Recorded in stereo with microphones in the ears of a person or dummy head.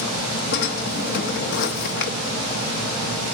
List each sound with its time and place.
0.5 s a drawer: 55° left (ahead or behind), 0.9 m